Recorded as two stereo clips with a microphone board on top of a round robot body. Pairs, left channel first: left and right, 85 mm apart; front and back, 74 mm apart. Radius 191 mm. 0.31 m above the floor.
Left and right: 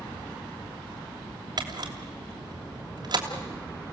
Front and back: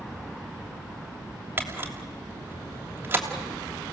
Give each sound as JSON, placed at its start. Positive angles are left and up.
{"t": 1.6, "sound": "a camera shutter", "azimuth_deg": -120, "distance_m": 3.0}